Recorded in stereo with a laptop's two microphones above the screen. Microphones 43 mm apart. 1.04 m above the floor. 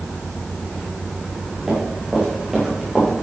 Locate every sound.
1.7 s running footsteps: 15° right (ahead or behind), 5 m; by 3.1 s 10° right (ahead or behind), 6 m